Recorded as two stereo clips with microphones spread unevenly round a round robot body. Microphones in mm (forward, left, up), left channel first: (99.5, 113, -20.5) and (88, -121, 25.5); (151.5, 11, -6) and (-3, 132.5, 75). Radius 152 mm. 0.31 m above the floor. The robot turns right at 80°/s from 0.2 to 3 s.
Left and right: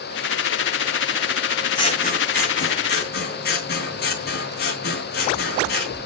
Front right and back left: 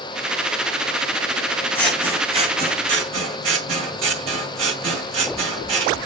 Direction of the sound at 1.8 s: 25° left.